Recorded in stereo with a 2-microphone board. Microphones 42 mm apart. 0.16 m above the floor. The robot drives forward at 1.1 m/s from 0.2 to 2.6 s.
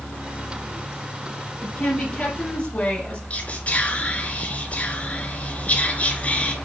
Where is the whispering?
30° left (ahead or behind), 1.8 m.